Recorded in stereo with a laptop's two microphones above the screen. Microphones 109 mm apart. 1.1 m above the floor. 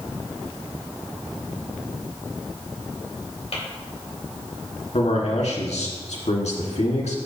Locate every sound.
3.5 s tapping: 65° left (ahead or behind), 3 m
4.9 s a man speaking: 90° left, 1.8 m